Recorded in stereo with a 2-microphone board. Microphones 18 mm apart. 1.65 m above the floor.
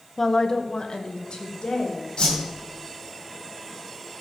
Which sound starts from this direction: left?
A whoosh, at 2.2 s.